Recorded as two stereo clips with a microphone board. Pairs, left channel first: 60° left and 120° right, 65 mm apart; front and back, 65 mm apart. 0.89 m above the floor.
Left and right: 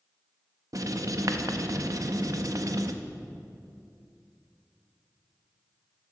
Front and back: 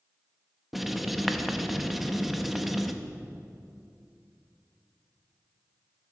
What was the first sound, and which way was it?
Writing, 90° right.